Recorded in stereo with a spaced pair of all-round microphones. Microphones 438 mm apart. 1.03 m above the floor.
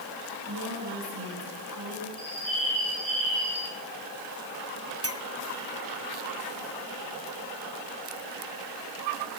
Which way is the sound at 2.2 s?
70° left (ahead or behind).